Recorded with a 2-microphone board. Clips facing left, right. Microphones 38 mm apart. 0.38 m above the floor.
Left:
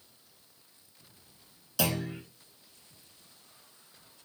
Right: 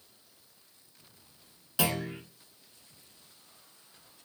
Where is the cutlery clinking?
No cutlery clinking in this recording.